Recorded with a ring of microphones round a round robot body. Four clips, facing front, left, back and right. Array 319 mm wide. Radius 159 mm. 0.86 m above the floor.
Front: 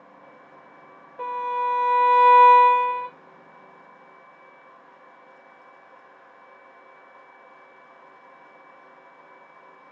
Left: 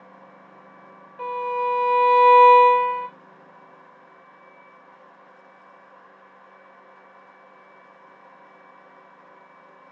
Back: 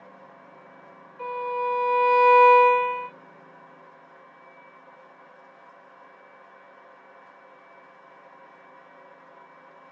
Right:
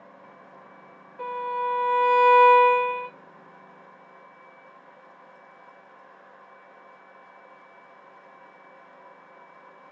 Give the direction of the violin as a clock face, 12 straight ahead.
11 o'clock.